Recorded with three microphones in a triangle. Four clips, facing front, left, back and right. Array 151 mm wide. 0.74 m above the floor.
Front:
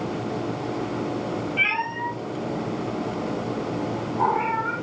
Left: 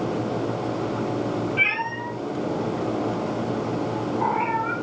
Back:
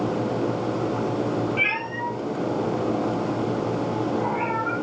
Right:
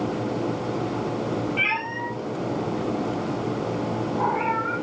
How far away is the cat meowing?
About 5.5 m.